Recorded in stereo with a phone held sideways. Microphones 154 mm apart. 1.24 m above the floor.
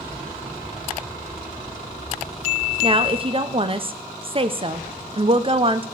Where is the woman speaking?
35° right (ahead or behind), 0.7 m.